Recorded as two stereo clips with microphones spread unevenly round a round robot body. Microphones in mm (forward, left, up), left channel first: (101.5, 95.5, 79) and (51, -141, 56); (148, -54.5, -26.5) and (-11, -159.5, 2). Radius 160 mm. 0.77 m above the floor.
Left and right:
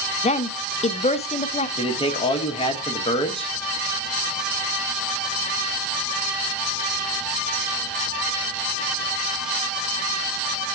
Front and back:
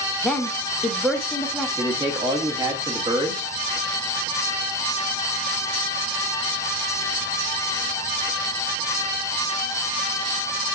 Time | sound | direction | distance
0.2 | a woman speaking | 90° left | 0.5 m
1.8 | a man speaking | 140° left | 0.9 m